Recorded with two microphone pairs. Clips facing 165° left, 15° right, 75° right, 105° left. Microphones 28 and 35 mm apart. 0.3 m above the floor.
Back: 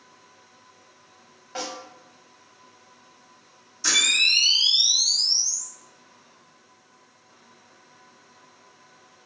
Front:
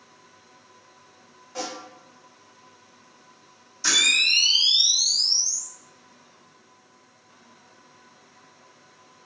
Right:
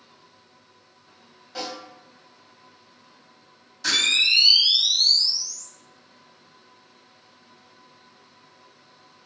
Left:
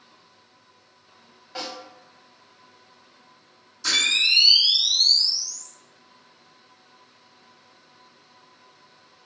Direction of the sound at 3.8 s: 95° right.